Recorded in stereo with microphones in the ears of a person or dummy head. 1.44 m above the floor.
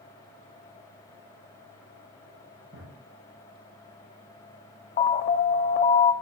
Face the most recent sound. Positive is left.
turn(degrees=40)  # may be behind; listen again after turning